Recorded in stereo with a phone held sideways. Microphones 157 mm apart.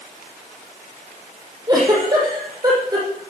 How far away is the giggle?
About 5.5 m.